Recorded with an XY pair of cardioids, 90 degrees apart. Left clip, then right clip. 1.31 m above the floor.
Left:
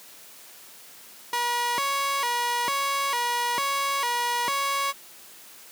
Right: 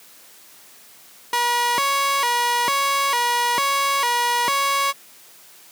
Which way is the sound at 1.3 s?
45° right.